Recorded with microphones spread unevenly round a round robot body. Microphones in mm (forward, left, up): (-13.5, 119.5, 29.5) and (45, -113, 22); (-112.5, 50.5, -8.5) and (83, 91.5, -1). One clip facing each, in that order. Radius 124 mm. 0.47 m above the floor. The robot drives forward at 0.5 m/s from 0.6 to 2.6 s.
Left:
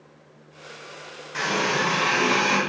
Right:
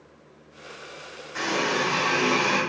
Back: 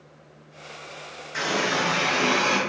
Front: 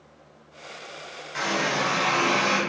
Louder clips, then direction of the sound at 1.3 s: Even, back 1 dB; 150° left.